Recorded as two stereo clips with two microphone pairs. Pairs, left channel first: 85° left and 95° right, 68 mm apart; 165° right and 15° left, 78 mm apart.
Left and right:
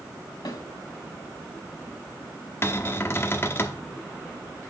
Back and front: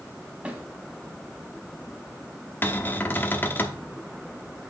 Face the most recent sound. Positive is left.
turn(degrees=135)